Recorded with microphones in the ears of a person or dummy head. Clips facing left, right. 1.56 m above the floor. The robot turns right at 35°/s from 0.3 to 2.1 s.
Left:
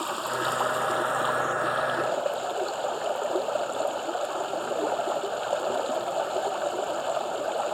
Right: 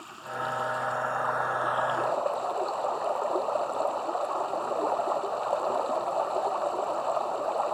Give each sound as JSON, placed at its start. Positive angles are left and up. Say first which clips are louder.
{"t": 0.0, "sound": "running water", "louder": "left 7 dB", "azimuth_deg": 105}